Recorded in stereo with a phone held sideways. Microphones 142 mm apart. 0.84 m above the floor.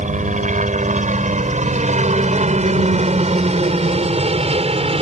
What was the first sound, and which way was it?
A helicopter, 60° right (ahead or behind).